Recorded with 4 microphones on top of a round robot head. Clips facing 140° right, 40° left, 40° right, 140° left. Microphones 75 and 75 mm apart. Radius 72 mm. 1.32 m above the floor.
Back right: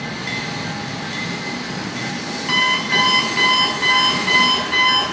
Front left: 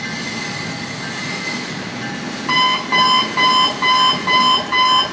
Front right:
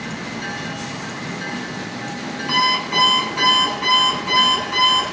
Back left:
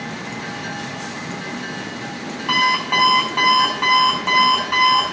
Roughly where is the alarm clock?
Left.